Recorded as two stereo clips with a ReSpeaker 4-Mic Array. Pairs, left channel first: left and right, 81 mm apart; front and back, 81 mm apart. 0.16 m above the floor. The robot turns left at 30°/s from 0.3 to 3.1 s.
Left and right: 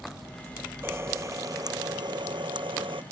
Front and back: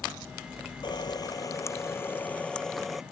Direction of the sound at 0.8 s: 25° right.